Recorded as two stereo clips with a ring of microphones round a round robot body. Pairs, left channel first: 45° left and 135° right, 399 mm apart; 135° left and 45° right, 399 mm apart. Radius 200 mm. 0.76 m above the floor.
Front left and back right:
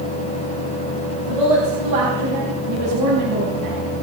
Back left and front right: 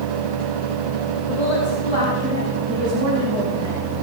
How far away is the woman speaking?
About 5.5 m.